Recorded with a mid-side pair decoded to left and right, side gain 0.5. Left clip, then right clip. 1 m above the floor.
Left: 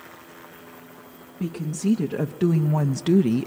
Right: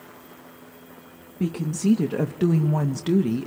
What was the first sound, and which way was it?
A woman speaking, 25° right.